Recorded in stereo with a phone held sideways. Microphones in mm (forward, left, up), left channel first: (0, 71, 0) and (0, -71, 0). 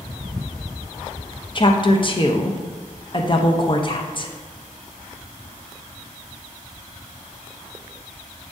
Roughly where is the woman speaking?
Left.